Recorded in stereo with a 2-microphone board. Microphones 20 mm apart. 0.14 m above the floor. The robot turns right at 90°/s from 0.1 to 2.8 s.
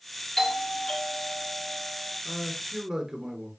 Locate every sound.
0.4 s a doorbell: 10° left, 2.5 m; by 2.1 s 170° left, 2.5 m
2.2 s a man speaking: 170° left, 1.7 m; by 3.5 s 140° right, 1.7 m